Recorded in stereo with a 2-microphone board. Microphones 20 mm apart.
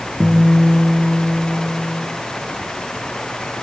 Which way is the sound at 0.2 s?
10° right (ahead or behind).